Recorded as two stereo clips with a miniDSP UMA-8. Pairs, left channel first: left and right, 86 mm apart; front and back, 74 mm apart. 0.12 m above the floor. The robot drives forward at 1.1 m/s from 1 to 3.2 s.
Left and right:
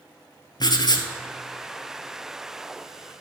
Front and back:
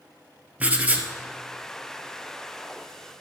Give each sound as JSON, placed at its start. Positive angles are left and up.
{"t": 0.6, "sound": "writing", "azimuth_deg": 115, "distance_m": 1.0}